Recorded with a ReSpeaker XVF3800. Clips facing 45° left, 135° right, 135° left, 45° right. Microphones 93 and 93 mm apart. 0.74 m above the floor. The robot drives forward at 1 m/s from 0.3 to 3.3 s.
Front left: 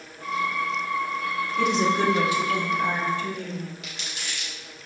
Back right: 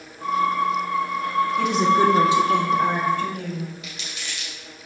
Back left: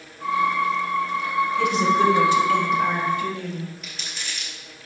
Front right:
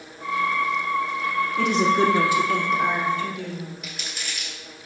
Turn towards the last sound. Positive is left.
turn(degrees=40)